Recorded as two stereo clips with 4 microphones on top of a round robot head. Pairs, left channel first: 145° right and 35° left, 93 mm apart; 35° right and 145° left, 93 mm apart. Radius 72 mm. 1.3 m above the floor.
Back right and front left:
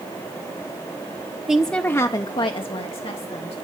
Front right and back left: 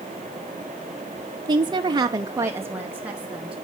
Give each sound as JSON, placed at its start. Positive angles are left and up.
{"t": 1.5, "sound": "a woman speaking", "azimuth_deg": 115, "distance_m": 0.7}